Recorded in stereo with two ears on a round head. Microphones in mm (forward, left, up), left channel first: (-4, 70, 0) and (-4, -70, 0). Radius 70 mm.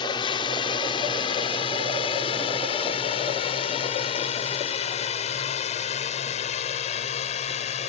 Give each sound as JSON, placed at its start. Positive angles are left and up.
{"t": 0.0, "sound": "a drone", "side_deg": 30}